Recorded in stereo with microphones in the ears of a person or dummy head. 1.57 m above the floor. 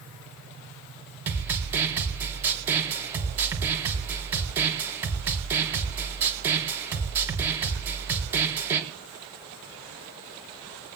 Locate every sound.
1.3 s a snare drum: 10° right (ahead or behind), 4 m